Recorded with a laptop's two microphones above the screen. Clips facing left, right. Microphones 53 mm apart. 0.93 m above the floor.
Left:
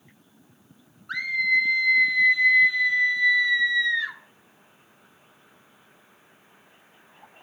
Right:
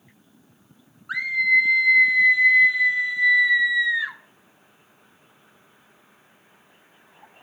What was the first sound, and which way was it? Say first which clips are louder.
A scream: right 3 dB; 10° right (ahead or behind).